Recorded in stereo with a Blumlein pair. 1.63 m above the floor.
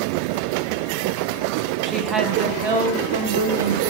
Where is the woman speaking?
15° right, 1.2 m; by 3.8 s 70° right, 1.8 m.